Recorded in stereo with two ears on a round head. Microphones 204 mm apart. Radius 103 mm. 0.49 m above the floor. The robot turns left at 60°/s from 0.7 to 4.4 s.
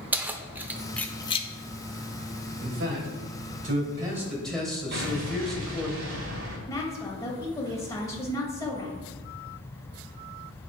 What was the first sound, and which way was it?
Keys jangling, 10° right (ahead or behind).